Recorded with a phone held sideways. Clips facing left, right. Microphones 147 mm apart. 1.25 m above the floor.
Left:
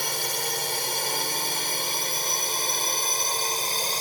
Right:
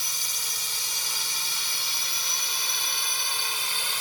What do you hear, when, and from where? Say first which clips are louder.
0.0 s a drone: left 13 dB; 65° left (ahead or behind); by 4.0 s 40° left (ahead or behind)